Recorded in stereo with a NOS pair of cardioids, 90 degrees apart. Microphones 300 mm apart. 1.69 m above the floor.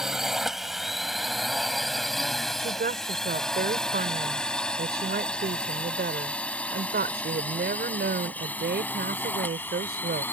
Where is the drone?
Straight ahead; by 10.3 s 5° left.